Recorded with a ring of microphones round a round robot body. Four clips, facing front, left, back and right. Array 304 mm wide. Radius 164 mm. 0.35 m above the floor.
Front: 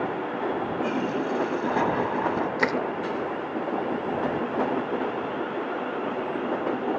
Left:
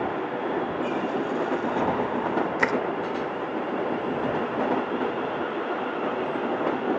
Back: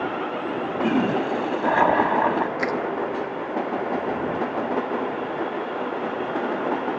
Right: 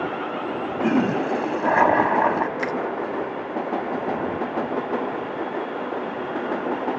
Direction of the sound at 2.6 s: 55° left.